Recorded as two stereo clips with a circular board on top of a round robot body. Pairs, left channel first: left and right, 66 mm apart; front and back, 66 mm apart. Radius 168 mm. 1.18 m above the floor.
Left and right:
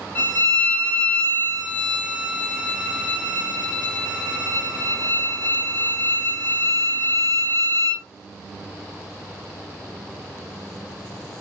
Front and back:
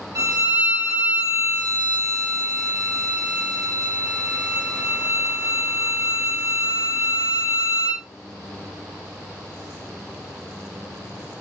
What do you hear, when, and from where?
0.1 s a violin: 150° left, 1.3 m